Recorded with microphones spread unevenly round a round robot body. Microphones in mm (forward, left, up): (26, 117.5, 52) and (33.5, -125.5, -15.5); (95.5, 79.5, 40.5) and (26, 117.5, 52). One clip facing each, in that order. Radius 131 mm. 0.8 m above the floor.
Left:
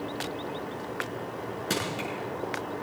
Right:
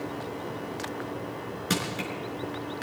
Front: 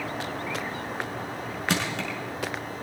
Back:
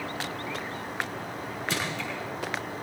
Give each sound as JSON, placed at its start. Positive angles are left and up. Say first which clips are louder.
{"t": 1.7, "sound": "crushing", "louder": "right 1 dB, front 4 dB", "azimuth_deg": -5, "distance_m": 4.5}